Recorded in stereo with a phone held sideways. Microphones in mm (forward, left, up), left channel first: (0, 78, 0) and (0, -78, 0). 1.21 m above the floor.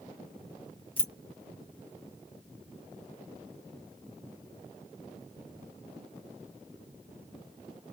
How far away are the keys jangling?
About 0.7 m.